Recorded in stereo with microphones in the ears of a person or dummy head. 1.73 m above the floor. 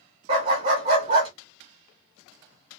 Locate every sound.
0.3 s a dog barking: 25° right (ahead or behind), 1.2 m